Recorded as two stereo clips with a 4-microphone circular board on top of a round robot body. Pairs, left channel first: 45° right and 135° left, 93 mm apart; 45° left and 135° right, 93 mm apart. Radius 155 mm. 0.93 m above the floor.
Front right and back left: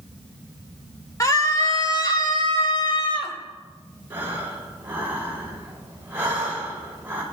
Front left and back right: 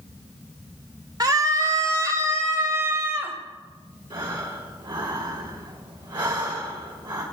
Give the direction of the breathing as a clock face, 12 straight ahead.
5 o'clock.